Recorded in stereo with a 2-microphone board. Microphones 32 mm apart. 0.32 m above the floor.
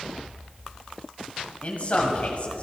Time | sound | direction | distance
1.6 | a man speaking | 55° left (ahead or behind) | 2 m